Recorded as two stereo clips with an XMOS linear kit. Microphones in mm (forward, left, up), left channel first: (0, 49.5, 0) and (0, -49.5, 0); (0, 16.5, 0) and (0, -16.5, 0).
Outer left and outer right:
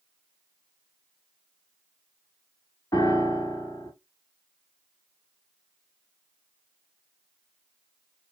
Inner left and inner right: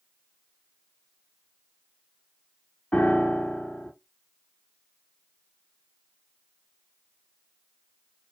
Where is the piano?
40° left (ahead or behind), 0.7 m.